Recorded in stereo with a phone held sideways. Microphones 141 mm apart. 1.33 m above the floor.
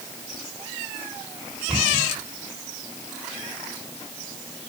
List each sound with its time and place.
1.7 s a cupboard door: centre (ahead or behind), 5.5 m